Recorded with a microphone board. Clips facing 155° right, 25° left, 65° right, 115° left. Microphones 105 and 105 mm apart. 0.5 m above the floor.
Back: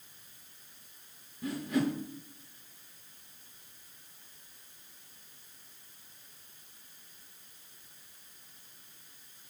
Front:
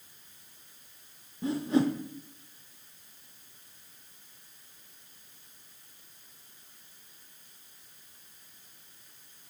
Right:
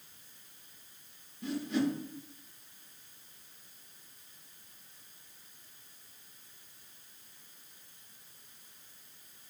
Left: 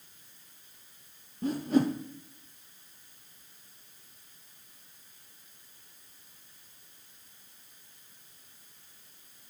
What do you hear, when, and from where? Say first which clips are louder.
1.4 s a whoosh: front 4 dB, left 5 dB; 80° left, 0.6 m